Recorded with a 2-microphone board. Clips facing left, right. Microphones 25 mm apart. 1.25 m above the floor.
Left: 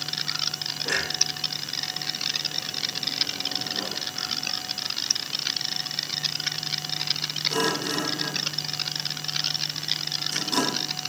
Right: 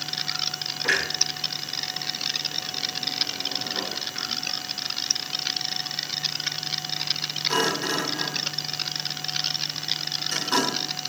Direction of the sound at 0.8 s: 85° right.